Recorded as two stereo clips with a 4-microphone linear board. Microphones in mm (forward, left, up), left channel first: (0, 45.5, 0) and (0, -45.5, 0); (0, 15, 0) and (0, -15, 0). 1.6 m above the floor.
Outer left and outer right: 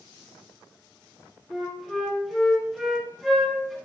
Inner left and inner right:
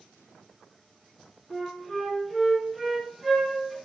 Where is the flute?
Centre (ahead or behind), 3 m.